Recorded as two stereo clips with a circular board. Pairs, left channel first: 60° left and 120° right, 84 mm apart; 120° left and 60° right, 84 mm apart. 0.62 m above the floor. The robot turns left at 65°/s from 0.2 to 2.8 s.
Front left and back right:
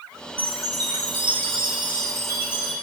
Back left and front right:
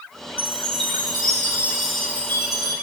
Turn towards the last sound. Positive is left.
turn(degrees=150)